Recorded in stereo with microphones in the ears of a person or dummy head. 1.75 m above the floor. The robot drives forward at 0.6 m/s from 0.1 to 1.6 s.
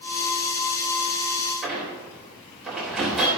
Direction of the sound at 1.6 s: Centre (ahead or behind).